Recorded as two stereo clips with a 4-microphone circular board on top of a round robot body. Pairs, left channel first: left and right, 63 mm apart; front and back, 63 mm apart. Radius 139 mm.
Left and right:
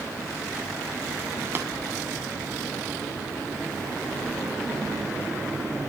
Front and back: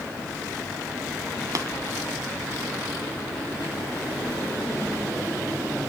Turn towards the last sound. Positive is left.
turn(degrees=-145)